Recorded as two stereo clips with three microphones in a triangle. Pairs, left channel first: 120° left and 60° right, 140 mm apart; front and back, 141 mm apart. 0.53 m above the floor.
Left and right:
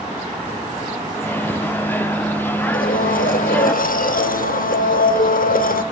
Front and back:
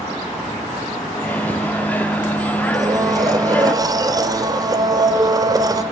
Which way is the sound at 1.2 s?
65° left.